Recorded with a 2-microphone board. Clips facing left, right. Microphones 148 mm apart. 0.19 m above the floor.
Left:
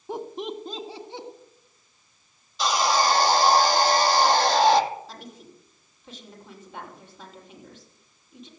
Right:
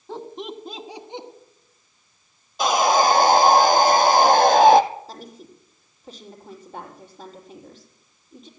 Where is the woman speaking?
40° right (ahead or behind), 5.5 m.